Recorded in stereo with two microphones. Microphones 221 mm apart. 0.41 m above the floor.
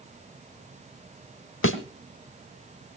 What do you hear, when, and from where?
1.6 s a thud: 70° left (ahead or behind), 1.6 m